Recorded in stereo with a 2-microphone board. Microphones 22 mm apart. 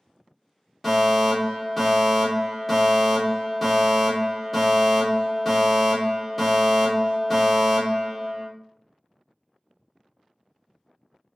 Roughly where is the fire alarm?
Centre.